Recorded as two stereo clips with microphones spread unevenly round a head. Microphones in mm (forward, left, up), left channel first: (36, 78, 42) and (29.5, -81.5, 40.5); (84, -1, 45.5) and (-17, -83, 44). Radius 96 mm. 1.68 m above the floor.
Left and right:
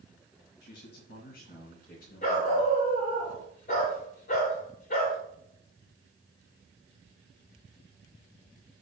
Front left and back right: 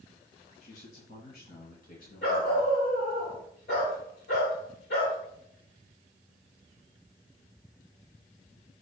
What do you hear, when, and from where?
0.6 s a man speaking: 70° left, 2.5 m; by 2.8 s 50° left, 3.5 m
2.2 s a dog barking: 55° left, 3 m